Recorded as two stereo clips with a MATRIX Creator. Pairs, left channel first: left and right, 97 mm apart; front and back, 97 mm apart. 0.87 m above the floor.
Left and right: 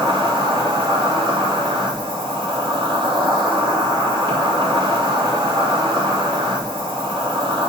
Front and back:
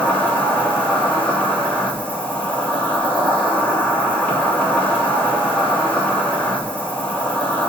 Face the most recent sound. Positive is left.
turn(degrees=-70)